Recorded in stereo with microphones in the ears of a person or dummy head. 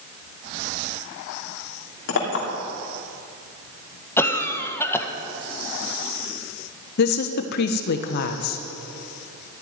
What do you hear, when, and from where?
2.1 s a clink: 55° left (ahead or behind), 3 m
4.2 s a cough: 15° left (ahead or behind), 1.8 m
7.0 s a woman speaking: 55° left (ahead or behind), 1.2 m